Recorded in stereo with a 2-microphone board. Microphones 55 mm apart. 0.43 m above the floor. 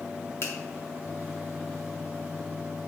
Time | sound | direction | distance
0.4 | a finger snap | 55° left (ahead or behind) | 2.5 m